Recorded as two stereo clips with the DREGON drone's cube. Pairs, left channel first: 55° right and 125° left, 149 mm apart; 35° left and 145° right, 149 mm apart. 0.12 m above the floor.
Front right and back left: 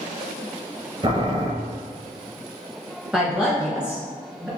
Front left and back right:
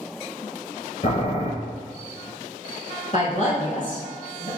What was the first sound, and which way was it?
Boiling, 70° left.